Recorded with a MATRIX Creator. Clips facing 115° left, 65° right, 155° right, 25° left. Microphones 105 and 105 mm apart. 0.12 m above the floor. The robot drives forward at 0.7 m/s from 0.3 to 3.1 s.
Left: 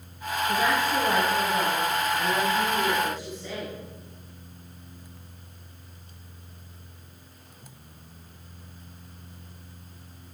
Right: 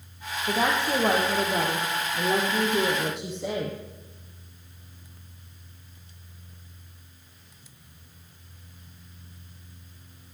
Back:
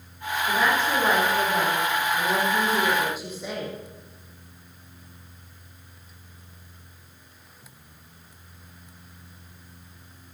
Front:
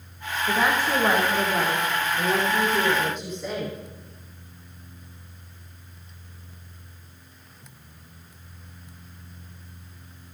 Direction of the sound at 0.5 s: 55° right.